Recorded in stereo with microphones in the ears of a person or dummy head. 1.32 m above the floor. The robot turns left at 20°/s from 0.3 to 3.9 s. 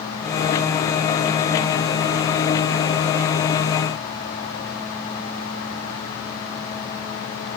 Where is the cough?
No cough in this recording.